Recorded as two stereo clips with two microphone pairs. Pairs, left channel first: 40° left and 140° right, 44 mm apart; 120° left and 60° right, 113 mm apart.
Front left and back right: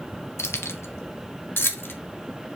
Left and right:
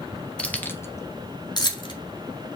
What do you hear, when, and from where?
0.4 s keys jangling: 40° left, 0.9 m; by 1.9 s 70° left, 1.4 m